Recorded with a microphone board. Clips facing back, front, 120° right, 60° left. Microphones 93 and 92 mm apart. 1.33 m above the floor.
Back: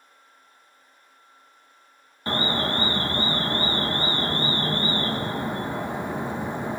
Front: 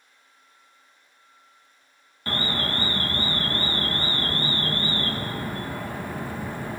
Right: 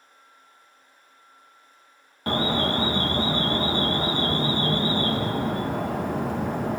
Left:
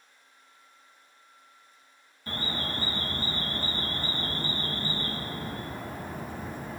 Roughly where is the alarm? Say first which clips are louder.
Back 3 dB, right 11 dB; right.